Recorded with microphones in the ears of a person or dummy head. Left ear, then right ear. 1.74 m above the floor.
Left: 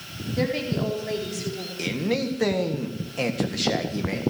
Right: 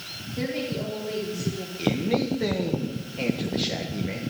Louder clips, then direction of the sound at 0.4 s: Left 4 dB; 50° left (ahead or behind).